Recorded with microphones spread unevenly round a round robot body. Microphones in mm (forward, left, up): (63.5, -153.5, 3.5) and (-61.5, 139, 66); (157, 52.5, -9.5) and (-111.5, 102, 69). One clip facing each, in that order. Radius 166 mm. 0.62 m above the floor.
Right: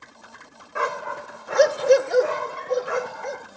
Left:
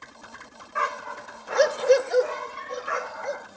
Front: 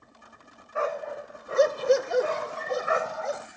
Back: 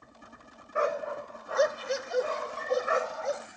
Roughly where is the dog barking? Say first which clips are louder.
Right 6 dB, even; behind right.